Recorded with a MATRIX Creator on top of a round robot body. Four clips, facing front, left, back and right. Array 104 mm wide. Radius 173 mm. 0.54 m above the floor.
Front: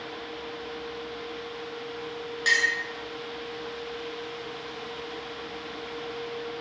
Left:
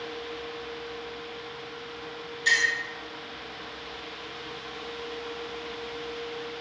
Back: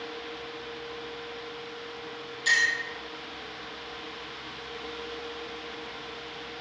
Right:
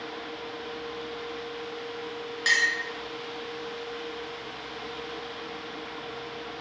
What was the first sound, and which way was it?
A clink, 50° right.